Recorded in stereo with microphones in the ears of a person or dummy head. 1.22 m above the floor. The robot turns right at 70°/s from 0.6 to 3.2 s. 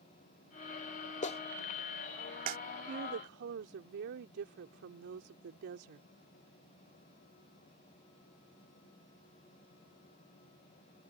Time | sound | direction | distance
1.2 | a clap | 40° left (ahead or behind) | ?
2.9 | a woman speaking | 40° right (ahead or behind) | ?